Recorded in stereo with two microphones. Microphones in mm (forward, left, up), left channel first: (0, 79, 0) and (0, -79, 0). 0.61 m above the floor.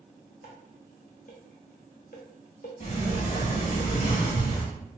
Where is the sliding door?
50° left (ahead or behind), 0.8 m.